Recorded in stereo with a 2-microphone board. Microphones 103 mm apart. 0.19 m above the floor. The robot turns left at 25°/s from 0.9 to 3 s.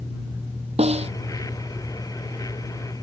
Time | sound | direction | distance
0.8 | a snare drum | 85° right | ?